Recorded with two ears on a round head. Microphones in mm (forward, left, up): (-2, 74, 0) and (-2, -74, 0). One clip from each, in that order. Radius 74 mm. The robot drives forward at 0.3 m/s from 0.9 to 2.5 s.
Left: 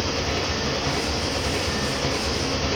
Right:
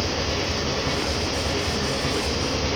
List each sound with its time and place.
0.0 s an engine running: 20° left (ahead or behind), 8 m